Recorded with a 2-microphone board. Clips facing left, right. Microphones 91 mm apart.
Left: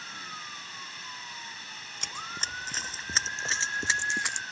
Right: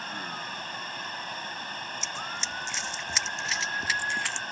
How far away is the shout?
I don't hear a shout.